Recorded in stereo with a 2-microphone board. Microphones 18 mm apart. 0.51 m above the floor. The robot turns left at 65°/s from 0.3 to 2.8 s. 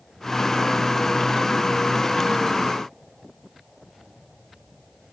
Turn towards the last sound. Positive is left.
No sound to turn to.